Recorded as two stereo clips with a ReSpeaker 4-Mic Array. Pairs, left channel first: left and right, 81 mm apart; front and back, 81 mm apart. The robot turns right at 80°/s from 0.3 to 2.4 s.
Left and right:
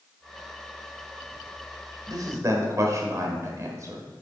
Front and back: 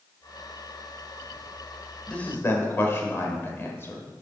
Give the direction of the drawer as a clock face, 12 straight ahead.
No drawer in this recording.